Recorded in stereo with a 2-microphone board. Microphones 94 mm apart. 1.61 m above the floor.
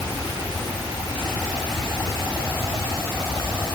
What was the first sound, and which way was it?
Only background noise.